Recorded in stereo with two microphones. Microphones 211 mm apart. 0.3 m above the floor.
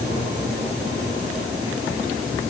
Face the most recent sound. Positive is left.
No sound to turn to.